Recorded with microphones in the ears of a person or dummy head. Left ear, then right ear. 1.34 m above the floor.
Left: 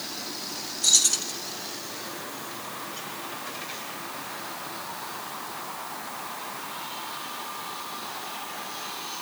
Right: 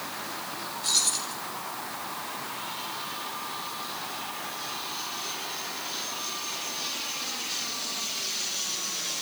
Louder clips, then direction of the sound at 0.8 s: Left 5 dB; 50° left (ahead or behind).